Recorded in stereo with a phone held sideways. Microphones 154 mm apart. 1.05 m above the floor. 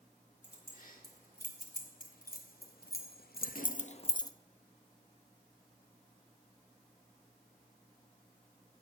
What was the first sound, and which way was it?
Keys jangling, 60° left (ahead or behind).